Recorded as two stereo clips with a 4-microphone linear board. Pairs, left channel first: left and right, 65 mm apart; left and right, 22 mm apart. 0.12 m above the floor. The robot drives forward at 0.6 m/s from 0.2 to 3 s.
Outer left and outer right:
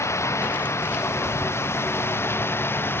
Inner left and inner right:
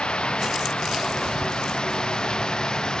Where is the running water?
50° left (ahead or behind); by 3.0 s 35° left (ahead or behind).